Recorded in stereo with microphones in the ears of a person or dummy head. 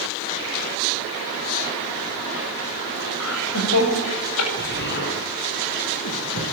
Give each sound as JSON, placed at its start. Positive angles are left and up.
{"t": 3.2, "sound": "laughter", "side_deg": 80, "distance_m": 7.5}
{"t": 4.6, "sound": "an explosion", "side_deg": 50, "distance_m": 4.5}